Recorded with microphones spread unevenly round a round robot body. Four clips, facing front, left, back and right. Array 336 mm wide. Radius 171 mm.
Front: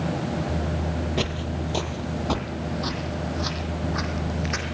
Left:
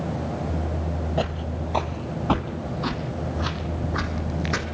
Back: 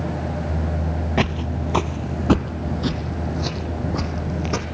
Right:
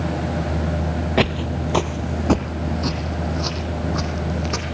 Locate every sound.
1.2 s footsteps: 110° right, 1.1 m; by 4.7 s straight behind, 2 m